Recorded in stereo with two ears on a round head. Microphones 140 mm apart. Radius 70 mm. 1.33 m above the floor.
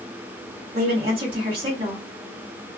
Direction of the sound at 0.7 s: 40° right (ahead or behind).